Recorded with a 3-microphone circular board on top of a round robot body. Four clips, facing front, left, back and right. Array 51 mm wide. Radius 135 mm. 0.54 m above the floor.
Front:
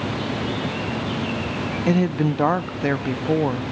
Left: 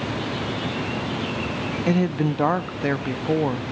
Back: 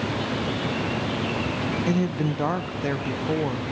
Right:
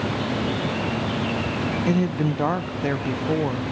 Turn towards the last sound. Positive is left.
turn(degrees=30)